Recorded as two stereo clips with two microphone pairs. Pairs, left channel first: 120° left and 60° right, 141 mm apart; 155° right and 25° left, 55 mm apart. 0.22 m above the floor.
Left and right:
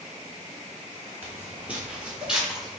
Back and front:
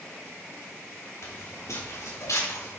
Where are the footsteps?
135° right, 3.5 m; by 2.8 s 150° right, 3 m.